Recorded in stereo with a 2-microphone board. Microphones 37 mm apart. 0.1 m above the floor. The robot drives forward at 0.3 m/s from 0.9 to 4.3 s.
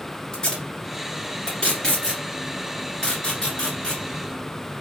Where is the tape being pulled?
25° left (ahead or behind), 1.8 m.